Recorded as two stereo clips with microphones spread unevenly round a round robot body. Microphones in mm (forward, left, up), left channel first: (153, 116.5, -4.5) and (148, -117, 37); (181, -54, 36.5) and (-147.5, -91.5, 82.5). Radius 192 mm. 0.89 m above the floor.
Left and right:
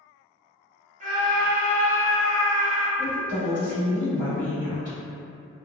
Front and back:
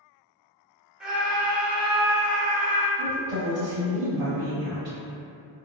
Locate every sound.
1.0 s a scream: 70° right, 0.8 m
3.0 s a woman speaking: 160° left, 1.2 m